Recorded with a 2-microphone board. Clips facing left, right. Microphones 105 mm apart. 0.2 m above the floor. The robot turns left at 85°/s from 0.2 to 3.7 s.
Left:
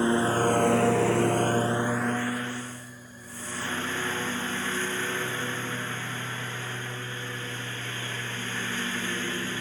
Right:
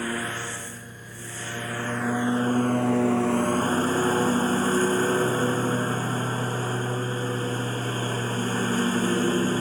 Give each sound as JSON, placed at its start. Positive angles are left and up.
{"t": 0.0, "sound": "a lawn mower", "azimuth_deg": 155}